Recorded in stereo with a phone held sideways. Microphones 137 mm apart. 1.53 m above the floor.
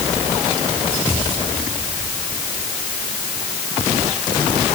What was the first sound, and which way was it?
Only background noise.